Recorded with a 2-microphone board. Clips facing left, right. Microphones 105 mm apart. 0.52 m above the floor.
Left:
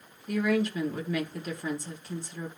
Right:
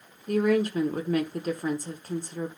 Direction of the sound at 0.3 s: 45° right (ahead or behind).